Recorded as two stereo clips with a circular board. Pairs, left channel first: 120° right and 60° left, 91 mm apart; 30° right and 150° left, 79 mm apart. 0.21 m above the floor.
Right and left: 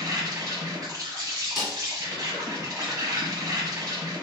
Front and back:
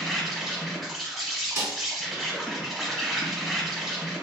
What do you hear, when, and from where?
0.0 s an insect: 60° left, 0.9 m
1.6 s a snare drum: 145° left, 1.8 m